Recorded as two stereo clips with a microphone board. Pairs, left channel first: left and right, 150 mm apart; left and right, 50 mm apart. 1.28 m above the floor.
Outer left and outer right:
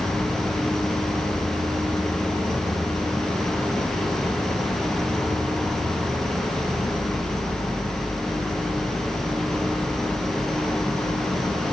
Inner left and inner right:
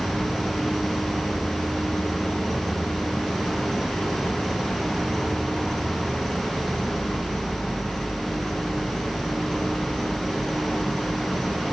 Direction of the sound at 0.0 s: Centre (ahead or behind).